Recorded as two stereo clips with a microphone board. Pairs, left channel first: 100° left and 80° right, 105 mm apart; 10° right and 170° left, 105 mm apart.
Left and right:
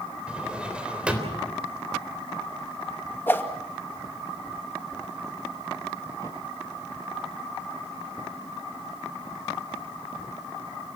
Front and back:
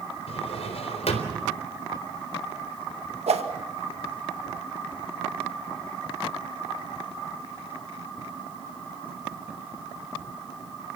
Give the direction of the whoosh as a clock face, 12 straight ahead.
6 o'clock.